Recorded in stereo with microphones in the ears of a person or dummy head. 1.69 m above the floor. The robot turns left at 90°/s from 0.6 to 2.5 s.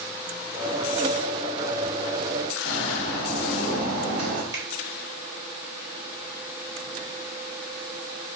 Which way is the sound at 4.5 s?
20° right (ahead or behind).